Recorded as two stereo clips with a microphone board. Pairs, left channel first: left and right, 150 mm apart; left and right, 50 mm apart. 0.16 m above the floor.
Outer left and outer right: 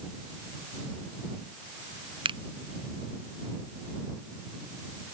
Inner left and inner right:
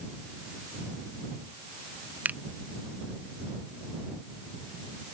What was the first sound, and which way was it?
A finger snap, 35° right (ahead or behind).